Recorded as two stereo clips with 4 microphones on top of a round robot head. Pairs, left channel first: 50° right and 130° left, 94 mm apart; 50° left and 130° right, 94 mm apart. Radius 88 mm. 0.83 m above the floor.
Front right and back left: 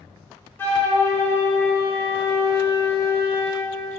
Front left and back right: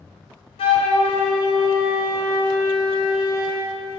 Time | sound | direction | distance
0.6 | a flute | 20° left | 1.0 m